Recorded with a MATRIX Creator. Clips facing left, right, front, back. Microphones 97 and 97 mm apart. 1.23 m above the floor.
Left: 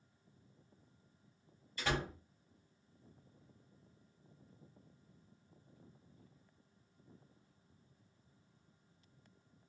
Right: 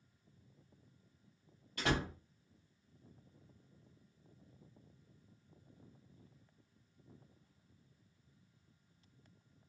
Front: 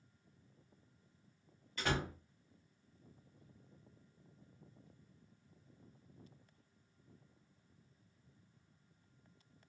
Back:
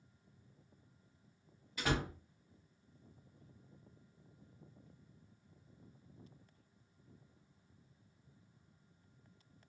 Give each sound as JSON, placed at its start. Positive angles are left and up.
{"t": 1.8, "sound": "a door slam", "azimuth_deg": -95, "distance_m": 1.5}